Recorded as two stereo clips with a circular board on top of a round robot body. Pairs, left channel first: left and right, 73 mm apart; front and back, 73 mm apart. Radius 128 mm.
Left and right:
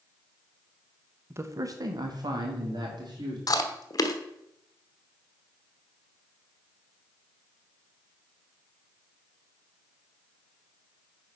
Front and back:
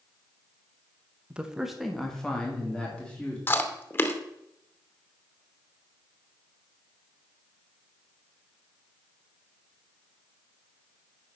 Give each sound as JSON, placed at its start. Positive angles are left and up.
{"t": 1.3, "sound": "a man speaking", "azimuth_deg": -115, "distance_m": 1.0}
{"t": 3.5, "sound": "chewing", "azimuth_deg": 60, "distance_m": 1.1}